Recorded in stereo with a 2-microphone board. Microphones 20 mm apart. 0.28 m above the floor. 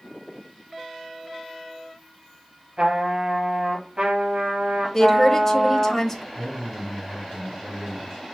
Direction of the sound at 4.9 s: 15° left (ahead or behind).